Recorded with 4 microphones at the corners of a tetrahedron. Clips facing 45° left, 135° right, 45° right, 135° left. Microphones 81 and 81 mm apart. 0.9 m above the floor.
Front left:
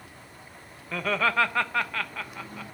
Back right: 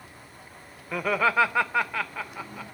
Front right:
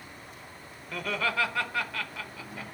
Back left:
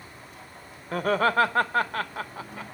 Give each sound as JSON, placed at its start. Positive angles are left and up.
{"t": 0.9, "sound": "laughter", "azimuth_deg": 150, "distance_m": 0.8}